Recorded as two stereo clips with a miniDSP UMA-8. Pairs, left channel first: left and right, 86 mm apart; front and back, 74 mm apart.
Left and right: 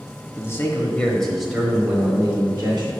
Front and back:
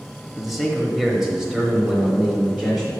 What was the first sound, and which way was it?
A man speaking, 90° left.